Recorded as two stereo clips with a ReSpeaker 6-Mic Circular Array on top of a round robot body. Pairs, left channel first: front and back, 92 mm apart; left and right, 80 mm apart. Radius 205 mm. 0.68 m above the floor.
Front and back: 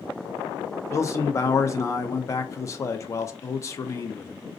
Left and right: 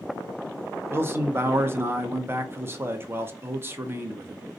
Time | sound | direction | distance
0.9 | a man speaking | 45° right | 0.7 m